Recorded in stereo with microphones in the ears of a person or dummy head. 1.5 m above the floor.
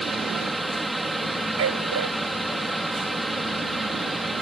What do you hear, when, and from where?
0.0 s a fan: centre (ahead or behind)
1.6 s a dog barking: 70° right (ahead or behind)